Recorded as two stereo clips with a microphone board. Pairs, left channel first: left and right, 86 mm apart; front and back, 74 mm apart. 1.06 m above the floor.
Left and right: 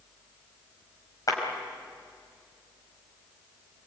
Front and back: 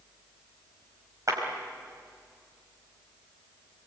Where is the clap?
135° left, 5 m.